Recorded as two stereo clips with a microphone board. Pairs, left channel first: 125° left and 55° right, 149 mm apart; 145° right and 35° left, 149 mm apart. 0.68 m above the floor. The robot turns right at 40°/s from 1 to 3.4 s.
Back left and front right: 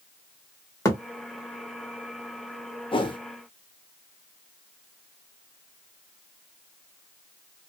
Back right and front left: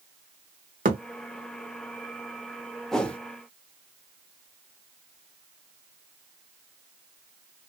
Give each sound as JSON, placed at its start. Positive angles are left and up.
{"t": 0.8, "sound": "a thud", "azimuth_deg": 55, "distance_m": 0.9}
{"t": 2.9, "sound": "a whoosh", "azimuth_deg": 130, "distance_m": 0.6}